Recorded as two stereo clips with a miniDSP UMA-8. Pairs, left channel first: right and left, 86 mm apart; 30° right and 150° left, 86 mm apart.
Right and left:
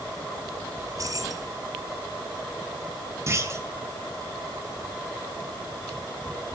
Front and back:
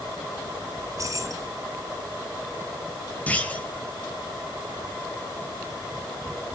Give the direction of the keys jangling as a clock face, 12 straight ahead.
8 o'clock.